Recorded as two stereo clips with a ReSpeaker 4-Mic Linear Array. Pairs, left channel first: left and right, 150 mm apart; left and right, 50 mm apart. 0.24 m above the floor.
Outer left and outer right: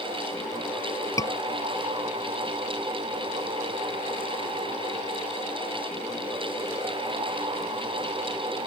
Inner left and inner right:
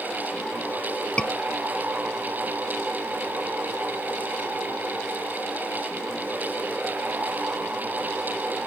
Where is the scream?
20° left (ahead or behind).